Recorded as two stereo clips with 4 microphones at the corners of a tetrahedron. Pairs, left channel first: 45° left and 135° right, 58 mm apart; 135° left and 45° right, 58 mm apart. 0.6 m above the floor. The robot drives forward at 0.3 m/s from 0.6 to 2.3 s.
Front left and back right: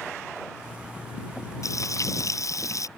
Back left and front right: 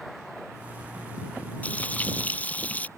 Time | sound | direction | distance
1.6 | frying | 70° left | ?